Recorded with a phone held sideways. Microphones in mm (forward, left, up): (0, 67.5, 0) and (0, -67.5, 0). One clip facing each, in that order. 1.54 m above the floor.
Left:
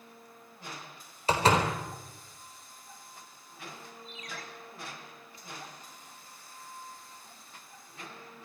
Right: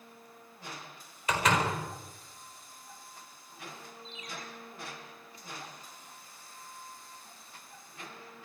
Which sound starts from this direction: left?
A door slam, at 1.3 s.